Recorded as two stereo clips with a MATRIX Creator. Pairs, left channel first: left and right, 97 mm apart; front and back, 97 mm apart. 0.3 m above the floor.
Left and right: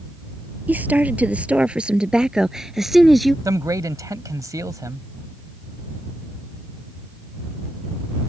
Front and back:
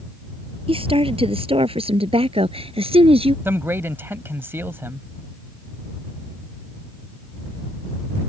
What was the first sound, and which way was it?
A woman speaking, 165° right.